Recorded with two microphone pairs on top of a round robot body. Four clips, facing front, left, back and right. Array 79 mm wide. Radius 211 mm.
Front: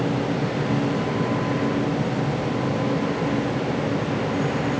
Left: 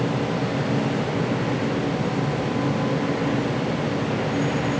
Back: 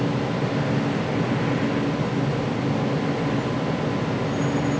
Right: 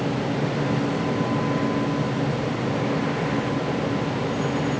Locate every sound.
Only background noise.